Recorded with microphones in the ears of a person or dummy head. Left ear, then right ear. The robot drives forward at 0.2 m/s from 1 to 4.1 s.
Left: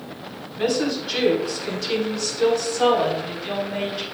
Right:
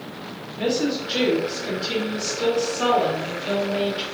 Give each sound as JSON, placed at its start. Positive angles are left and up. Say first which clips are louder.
{"t": 0.6, "sound": "a woman speaking", "louder": "left 1 dB", "side_deg": 90, "distance_m": 3.0}